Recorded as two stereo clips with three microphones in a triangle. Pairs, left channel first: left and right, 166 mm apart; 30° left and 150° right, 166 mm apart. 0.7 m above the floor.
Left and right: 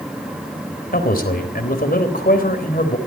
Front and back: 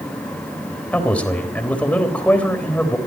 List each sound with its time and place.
0.9 s a man speaking: 110° left, 3.5 m